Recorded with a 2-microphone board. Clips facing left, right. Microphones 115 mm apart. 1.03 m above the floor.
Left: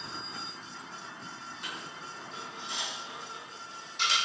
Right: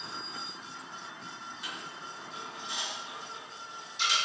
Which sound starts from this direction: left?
A dropped coin, at 1.6 s.